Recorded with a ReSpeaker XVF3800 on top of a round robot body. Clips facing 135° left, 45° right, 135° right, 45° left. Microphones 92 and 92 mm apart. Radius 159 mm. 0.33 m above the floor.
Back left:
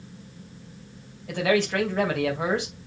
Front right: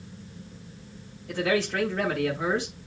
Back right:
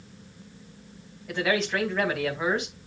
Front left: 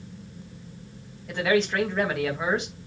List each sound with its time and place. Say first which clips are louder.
1.3 s a man speaking: back left 3 dB, front left 3 dB; 135° left, 3.5 m